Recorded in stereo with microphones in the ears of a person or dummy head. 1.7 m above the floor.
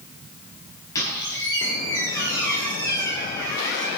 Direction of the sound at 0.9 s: 20° left (ahead or behind).